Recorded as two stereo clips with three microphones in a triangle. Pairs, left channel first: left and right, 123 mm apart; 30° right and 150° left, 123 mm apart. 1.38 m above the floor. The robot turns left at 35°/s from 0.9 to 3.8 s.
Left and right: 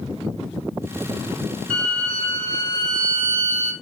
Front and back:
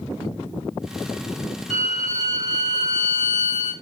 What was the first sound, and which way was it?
A violin, 175° left.